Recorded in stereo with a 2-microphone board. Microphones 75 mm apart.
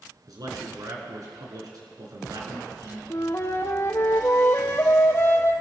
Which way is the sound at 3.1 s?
35° left (ahead or behind).